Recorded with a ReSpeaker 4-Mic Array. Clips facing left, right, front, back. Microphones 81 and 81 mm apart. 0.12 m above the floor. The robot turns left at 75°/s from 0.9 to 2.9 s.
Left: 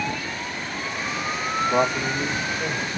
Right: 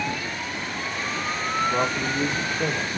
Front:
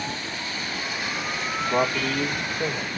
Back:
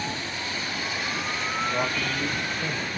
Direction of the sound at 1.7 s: 25° left.